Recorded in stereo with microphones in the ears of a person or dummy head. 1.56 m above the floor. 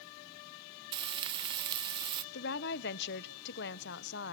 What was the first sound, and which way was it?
Frying, 25° right (ahead or behind).